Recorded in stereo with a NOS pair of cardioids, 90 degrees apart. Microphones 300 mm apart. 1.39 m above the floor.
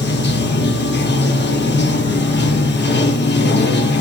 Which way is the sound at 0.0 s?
35° left.